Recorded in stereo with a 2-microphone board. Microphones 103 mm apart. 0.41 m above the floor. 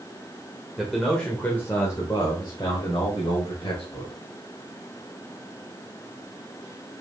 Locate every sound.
0.8 s a man speaking: 5° right (ahead or behind), 1.5 m; by 4.1 s 65° left (ahead or behind), 2.5 m